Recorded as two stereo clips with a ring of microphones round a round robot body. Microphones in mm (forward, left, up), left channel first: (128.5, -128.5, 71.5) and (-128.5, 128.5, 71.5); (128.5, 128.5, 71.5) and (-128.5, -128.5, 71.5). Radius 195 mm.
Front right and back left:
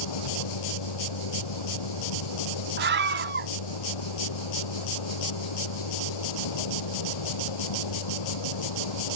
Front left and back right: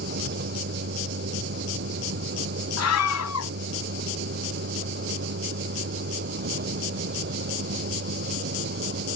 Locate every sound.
0.0 s a vehicle: 70° right
2.8 s a scream: 80° left